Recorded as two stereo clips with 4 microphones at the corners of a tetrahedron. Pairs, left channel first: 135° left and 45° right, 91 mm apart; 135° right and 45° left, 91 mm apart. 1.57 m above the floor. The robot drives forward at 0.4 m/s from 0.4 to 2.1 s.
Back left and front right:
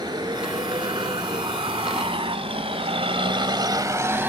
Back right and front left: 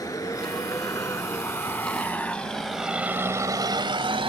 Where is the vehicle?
85° right; by 4.3 s 25° left.